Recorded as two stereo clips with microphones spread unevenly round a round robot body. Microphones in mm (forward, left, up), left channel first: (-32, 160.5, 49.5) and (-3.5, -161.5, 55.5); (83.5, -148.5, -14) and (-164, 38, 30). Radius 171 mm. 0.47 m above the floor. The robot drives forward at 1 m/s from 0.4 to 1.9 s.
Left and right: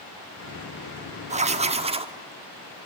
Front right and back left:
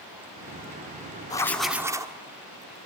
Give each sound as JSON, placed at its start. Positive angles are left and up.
{"t": 1.3, "sound": "writing", "azimuth_deg": -60, "distance_m": 1.4}